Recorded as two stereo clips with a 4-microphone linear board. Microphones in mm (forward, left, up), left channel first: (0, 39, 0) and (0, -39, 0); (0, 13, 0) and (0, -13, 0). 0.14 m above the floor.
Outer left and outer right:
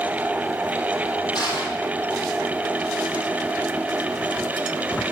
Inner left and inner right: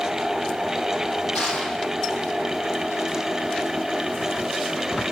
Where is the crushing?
65° left (ahead or behind), 3.5 m.